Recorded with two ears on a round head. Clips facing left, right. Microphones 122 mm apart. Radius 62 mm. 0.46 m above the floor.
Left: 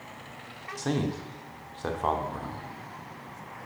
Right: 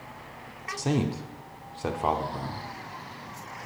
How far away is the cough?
I don't hear a cough.